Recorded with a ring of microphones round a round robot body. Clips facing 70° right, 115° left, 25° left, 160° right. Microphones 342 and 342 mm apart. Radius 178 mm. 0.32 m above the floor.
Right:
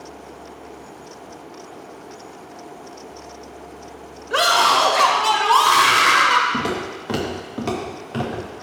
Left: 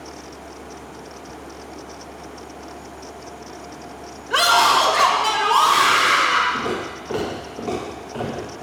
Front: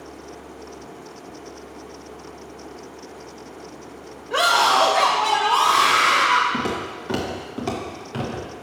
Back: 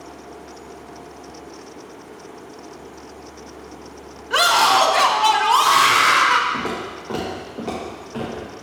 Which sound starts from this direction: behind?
A scream, at 4.3 s.